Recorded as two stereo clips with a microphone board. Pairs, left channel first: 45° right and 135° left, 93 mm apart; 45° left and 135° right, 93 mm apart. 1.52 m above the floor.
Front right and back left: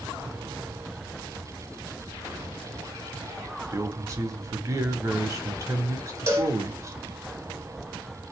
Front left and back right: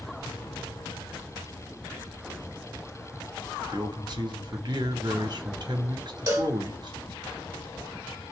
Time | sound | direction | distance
3.7 | a man speaking | 170° right | 1.2 m
6.3 | a cowbell | 175° right | 1.3 m